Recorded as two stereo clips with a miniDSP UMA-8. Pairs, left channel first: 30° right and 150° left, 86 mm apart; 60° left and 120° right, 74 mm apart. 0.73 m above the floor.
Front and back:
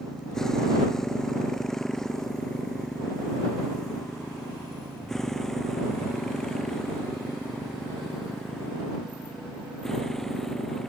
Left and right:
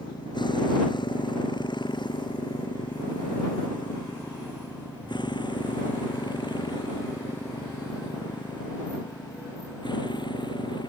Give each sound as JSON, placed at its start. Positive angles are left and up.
{"t": 0.0, "sound": "a motorcycle", "azimuth_deg": 55}